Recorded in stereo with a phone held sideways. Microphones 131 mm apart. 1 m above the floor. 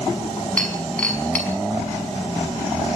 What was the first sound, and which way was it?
Breaking glass, 10° left (ahead or behind).